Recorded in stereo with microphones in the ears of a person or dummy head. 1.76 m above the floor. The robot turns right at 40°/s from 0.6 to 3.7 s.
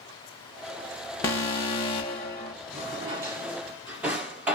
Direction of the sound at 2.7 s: 20° right (ahead or behind).